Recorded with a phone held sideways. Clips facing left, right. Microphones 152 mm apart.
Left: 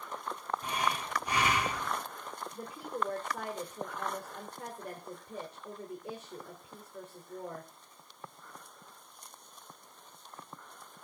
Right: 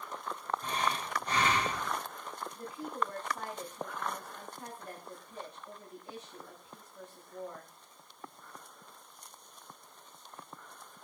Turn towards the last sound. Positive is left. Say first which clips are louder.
# even
turn(degrees=70)  # may be behind; listen again after turning